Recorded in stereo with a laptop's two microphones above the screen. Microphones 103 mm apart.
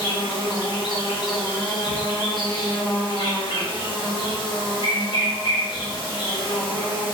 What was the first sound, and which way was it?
An insect, 50° left (ahead or behind).